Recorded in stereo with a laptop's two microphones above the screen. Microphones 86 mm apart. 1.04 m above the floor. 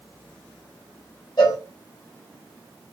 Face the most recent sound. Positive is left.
turn(degrees=55)  # may be behind; listen again after turning